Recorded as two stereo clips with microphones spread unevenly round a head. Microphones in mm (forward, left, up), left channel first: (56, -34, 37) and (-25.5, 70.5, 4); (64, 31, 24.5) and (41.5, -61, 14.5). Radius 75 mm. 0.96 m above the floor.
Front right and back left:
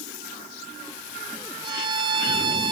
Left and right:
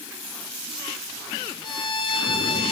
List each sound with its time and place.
1.6 s a violin: 70° left, 1.3 m